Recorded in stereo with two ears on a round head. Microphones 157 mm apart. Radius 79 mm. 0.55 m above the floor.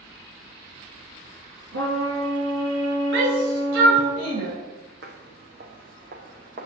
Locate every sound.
1.7 s a trumpet: 85° right, 3.5 m
3.1 s a shout: 75° right (ahead or behind), 2 m
5.0 s footsteps: 60° right (ahead or behind), 1.7 m; by 6.7 s 45° right (ahead or behind), 2.5 m